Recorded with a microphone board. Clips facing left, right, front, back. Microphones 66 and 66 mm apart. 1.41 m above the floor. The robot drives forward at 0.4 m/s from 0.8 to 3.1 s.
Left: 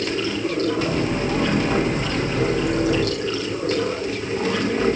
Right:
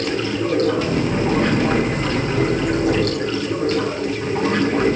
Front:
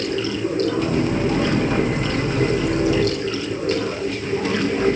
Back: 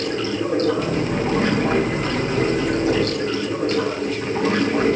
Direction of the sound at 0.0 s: 125° right.